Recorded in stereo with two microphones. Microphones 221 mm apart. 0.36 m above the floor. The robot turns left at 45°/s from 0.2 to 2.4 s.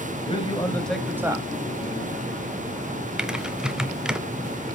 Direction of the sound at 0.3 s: 30° left.